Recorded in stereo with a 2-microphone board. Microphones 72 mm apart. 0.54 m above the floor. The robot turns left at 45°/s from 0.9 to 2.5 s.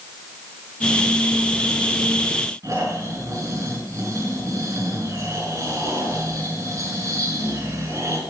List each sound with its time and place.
2.6 s snoring: 45° right (ahead or behind), 5.5 m